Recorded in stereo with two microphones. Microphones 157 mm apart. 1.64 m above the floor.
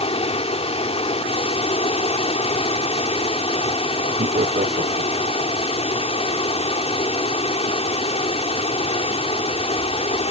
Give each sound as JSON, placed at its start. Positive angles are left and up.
{"t": 0.0, "sound": "running water", "side_deg": 40}
{"t": 4.2, "sound": "laughter", "side_deg": -60}